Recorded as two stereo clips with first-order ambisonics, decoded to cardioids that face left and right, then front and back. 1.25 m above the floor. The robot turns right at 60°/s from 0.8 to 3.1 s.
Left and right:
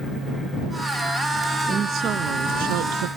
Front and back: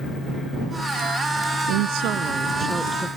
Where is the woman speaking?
165° right; by 3.1 s 80° right.